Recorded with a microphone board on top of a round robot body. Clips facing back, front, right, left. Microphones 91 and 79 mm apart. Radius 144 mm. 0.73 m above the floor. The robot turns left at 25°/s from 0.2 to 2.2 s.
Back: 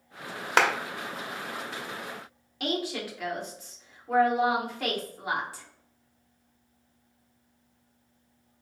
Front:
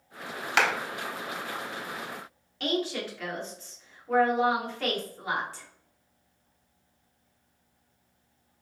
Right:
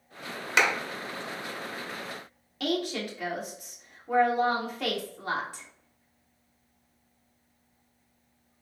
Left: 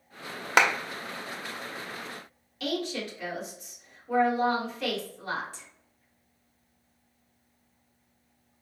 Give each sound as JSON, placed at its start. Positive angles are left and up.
{"t": 0.6, "sound": "a clap", "azimuth_deg": 130, "distance_m": 0.8}
{"t": 2.6, "sound": "a woman speaking", "azimuth_deg": -105, "distance_m": 1.7}